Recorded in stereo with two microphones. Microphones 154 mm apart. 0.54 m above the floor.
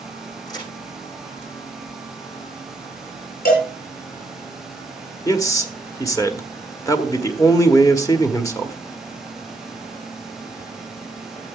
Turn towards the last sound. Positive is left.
turn(degrees=20)  # may be behind; listen again after turning